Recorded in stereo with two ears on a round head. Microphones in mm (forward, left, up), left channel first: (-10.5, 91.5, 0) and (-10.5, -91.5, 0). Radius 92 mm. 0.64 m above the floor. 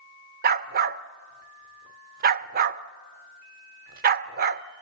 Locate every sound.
0.4 s a dog barking: 45° right (ahead or behind), 0.5 m